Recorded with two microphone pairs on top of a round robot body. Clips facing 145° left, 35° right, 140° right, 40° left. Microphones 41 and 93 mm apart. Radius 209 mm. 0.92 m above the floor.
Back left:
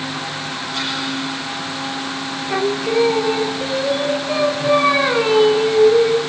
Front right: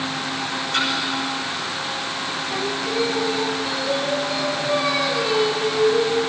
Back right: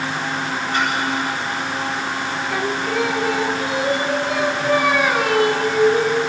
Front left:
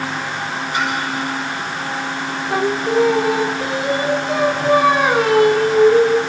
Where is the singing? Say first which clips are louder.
Back left 8 dB, front left 7 dB; 100° left, 1.5 m.